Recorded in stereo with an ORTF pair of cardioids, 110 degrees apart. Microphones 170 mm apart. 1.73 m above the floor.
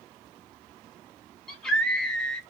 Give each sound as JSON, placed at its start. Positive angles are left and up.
{"t": 1.5, "sound": "a scream", "azimuth_deg": 5, "distance_m": 1.0}